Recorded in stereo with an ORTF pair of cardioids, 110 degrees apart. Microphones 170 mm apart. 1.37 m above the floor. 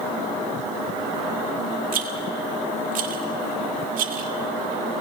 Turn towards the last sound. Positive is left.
turn(degrees=-65)